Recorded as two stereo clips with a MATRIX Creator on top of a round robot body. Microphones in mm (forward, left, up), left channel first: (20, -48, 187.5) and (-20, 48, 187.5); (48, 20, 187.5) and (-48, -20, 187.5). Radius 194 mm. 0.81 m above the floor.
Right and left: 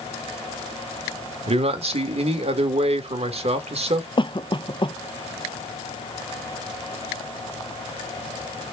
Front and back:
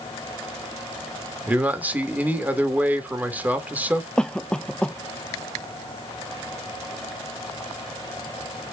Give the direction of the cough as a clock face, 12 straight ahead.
2 o'clock.